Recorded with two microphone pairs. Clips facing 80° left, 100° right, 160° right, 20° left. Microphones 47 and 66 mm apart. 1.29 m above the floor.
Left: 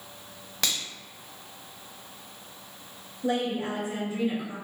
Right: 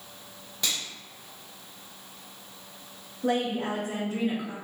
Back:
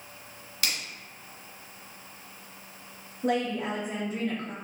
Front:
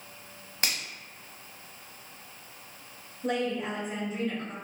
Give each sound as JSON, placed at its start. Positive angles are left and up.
{"t": 0.6, "sound": "a finger snap", "azimuth_deg": 75, "distance_m": 0.8}
{"t": 3.2, "sound": "a woman speaking", "azimuth_deg": -140, "distance_m": 0.9}